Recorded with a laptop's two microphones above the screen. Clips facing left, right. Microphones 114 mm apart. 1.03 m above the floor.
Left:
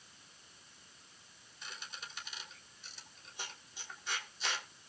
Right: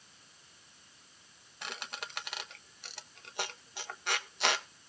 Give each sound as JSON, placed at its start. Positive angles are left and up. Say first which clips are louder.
{"t": 1.6, "sound": "a squeak", "louder": "right 7 dB", "side_deg": -70, "distance_m": 1.3}